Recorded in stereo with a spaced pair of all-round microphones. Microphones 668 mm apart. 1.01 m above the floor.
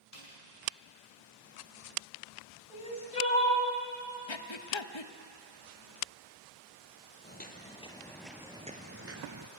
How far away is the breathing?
About 0.8 m.